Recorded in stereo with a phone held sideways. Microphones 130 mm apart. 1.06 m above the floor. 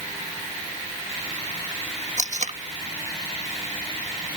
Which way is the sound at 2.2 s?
65° right (ahead or behind).